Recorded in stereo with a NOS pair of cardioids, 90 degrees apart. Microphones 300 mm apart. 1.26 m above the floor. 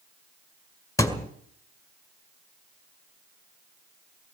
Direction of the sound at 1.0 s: 10° left.